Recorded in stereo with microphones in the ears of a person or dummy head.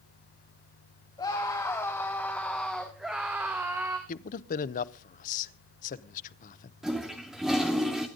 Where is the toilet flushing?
5° right (ahead or behind), 2 m.